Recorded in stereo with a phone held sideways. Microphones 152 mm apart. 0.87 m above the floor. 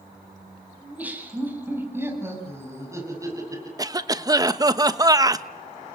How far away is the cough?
About 1.1 m.